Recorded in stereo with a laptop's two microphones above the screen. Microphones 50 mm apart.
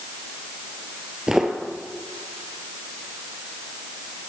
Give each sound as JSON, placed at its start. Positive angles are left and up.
{"t": 1.3, "sound": "footsteps", "side_deg": -5, "distance_m": 1.0}